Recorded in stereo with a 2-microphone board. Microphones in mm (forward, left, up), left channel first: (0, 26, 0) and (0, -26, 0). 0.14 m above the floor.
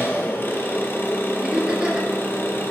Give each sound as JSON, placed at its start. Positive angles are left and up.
{"t": 0.0, "sound": "an engine running", "side_deg": 45, "distance_m": 1.9}
{"t": 1.4, "sound": "laughter", "side_deg": -20, "distance_m": 3.0}